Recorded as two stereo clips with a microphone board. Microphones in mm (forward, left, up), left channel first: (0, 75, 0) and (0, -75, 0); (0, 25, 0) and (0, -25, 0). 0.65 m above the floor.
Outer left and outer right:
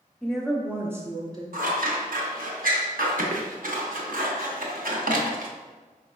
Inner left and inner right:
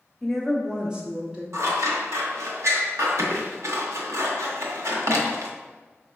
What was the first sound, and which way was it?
A woman speaking, 5° left (ahead or behind).